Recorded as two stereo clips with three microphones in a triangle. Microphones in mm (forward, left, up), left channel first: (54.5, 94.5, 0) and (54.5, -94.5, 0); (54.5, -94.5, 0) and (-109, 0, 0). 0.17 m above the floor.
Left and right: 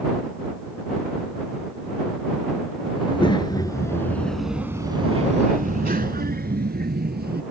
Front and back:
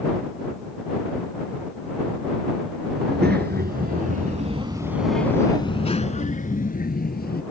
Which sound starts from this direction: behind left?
A child speaking, at 3.0 s.